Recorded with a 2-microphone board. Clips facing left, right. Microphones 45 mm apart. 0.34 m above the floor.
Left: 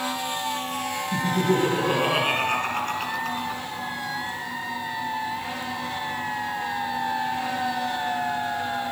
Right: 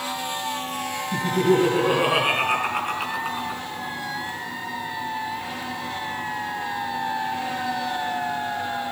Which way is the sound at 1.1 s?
15° right (ahead or behind).